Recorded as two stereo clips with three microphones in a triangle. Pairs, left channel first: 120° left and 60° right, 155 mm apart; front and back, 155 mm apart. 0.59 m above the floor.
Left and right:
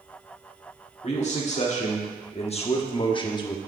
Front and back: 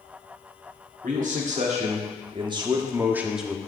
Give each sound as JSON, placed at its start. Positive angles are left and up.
{"t": 1.0, "sound": "a man speaking", "azimuth_deg": 155, "distance_m": 1.6}